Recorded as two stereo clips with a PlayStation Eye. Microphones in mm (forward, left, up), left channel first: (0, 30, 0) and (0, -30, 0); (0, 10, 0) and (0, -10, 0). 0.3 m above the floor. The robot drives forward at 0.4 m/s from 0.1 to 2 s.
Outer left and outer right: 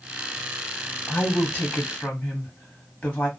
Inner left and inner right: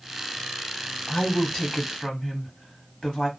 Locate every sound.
1.1 s a woman speaking: 30° left (ahead or behind), 1.2 m; by 3.3 s 25° left (ahead or behind), 1.5 m